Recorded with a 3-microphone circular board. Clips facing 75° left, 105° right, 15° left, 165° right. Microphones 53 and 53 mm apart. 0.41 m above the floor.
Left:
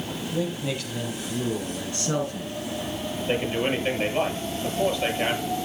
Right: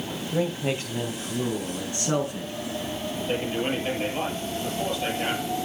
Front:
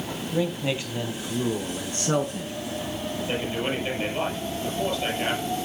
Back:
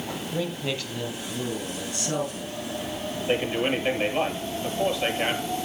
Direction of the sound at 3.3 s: 130° left.